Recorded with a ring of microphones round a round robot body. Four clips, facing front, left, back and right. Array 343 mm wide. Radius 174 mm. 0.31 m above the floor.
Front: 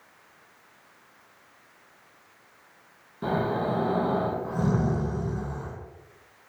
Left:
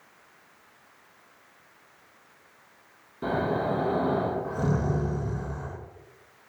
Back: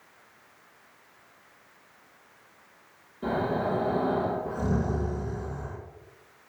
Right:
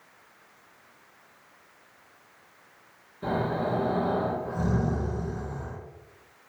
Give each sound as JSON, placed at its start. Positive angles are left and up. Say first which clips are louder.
{"t": 3.2, "sound": "snoring", "louder": "left 1 dB, front 1 dB", "azimuth_deg": 40, "distance_m": 3.5}